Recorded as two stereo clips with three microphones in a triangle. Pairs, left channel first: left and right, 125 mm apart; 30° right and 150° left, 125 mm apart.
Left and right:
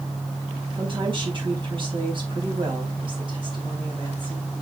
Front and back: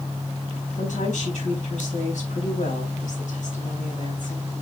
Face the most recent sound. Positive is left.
turn(degrees=-40)